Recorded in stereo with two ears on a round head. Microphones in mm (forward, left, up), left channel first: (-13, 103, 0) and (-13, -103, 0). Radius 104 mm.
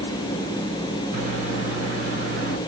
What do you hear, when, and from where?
1.1 s a microwave: 35° right (ahead or behind), 3 m